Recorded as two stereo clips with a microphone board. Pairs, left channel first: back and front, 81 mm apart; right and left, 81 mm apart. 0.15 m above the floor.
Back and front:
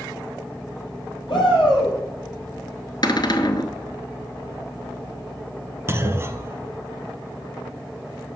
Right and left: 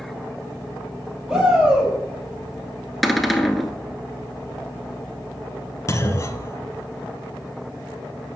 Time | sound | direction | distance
1.3 | a shout | 170° left | 5 m
3.0 | a cupboard door | straight behind | 0.9 m
5.9 | a clunk | 50° right | 0.8 m